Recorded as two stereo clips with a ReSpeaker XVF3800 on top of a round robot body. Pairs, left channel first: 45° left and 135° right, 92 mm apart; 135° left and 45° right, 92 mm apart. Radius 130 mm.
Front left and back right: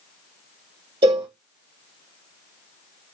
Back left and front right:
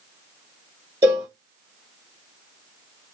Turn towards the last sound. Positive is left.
turn(degrees=-110)